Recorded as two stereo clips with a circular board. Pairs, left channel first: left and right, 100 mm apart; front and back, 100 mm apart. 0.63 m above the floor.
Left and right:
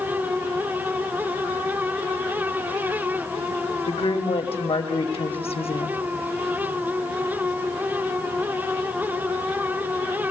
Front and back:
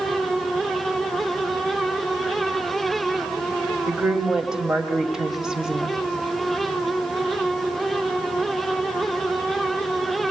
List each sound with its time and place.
3.9 s a woman speaking: 95° left, 3 m